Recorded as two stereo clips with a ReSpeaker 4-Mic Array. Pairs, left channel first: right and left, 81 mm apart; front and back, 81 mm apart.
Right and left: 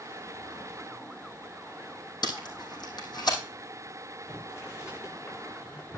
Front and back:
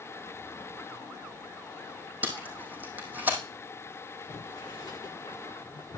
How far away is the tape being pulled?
About 3 m.